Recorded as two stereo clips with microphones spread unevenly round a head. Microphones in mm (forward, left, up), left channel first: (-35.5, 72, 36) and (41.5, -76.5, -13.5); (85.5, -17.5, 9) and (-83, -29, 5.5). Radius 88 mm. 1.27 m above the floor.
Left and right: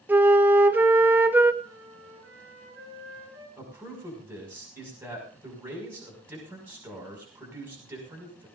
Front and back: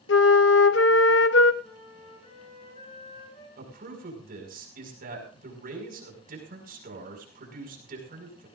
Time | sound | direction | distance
0.1 | a flute | 25° left | 0.8 m
1.6 | a flute | 50° right | 10 m
3.6 | a man speaking | 140° right | 5.5 m